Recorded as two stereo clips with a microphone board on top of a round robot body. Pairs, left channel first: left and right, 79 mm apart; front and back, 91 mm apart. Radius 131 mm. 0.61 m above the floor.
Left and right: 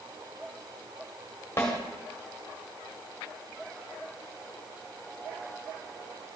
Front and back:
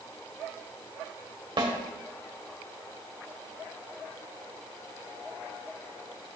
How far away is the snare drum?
About 1.9 m.